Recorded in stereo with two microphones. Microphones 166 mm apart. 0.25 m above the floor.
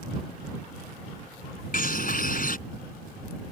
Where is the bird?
65° left (ahead or behind).